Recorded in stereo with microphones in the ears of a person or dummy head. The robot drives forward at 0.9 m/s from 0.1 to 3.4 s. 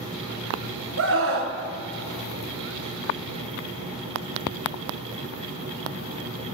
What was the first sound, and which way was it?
A scream, 70° right (ahead or behind).